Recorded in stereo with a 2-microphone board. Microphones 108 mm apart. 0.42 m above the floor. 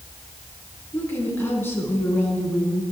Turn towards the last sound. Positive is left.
turn(degrees=20)  # may be behind; listen again after turning